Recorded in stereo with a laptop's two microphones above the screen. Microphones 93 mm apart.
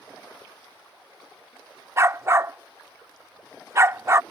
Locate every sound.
2.0 s a dog barking: 30° right (ahead or behind)